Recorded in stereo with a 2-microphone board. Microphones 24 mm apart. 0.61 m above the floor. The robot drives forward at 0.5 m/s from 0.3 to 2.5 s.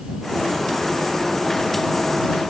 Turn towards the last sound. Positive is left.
No sound to turn to.